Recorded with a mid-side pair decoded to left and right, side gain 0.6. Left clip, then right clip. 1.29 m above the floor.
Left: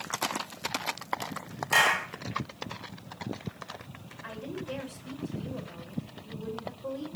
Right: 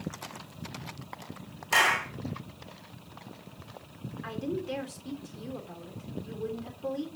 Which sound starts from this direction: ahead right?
A woman speaking, at 4.2 s.